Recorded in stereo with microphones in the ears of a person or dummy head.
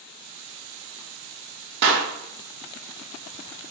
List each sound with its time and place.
1.8 s a clap: 60° right (ahead or behind), 0.8 m